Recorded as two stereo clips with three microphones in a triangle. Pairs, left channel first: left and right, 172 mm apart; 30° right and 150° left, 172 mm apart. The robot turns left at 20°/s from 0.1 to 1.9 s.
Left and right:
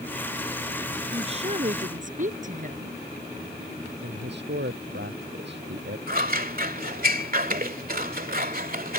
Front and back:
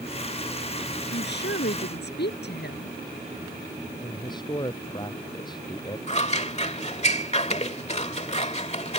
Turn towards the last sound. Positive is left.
turn(degrees=-75)